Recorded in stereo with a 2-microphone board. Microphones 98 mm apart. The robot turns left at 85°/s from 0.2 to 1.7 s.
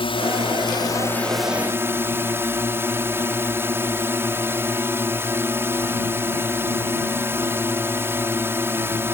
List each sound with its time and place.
0.0 s a drone: 100° left; by 9.2 s 25° right